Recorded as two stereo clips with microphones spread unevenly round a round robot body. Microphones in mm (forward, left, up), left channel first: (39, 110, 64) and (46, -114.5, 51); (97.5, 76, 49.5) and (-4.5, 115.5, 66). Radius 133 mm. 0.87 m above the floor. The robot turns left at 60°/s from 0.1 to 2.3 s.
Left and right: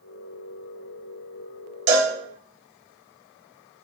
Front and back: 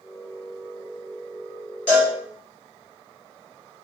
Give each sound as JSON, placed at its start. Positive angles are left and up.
{"t": 1.9, "sound": "a cowbell", "azimuth_deg": -90, "distance_m": 1.4}